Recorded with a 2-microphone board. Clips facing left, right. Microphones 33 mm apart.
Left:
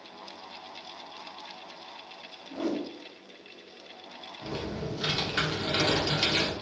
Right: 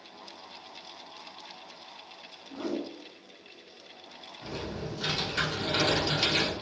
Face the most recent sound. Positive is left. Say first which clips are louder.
# left 2 dB
turn(degrees=25)  # may be behind; listen again after turning